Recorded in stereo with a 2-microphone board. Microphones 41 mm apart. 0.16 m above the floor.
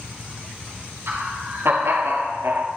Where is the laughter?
70° right (ahead or behind), 3.5 m; by 2.7 s 60° right (ahead or behind), 2.5 m.